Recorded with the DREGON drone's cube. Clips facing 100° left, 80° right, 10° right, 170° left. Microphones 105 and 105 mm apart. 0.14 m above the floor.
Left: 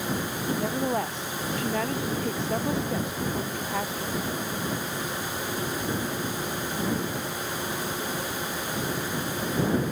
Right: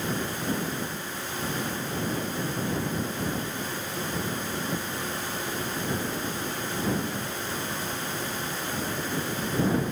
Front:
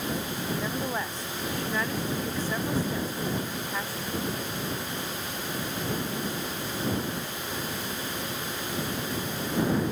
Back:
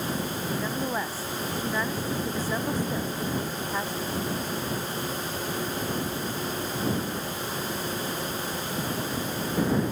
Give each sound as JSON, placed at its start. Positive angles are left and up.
{"t": 0.6, "sound": "a woman speaking", "azimuth_deg": 85}